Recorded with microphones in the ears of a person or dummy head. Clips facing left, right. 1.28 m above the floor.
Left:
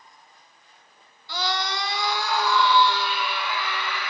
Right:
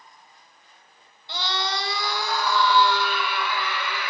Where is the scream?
25° right (ahead or behind), 1.2 m; by 4.1 s 60° right (ahead or behind), 2.5 m.